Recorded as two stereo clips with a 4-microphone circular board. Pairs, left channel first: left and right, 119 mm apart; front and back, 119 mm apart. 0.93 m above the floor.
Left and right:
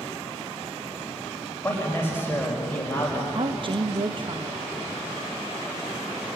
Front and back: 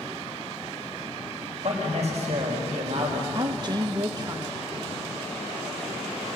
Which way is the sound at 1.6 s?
160° left.